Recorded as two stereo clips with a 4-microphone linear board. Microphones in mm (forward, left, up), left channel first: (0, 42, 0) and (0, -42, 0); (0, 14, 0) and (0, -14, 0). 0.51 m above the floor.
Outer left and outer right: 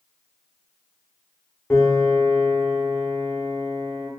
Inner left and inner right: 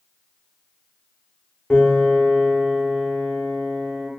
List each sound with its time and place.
1.7 s a piano: 25° left (ahead or behind), 0.6 m